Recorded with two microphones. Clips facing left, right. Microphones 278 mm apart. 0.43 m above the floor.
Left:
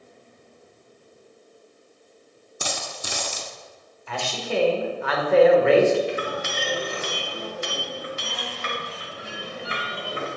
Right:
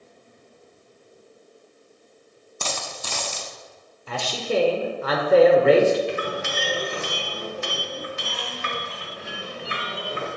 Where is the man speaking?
40° right (ahead or behind), 1.0 m.